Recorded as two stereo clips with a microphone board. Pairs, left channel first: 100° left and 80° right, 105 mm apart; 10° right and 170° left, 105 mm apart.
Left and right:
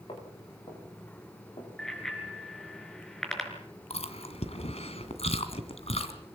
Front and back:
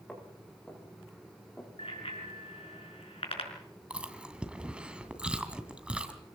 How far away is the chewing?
About 2 m.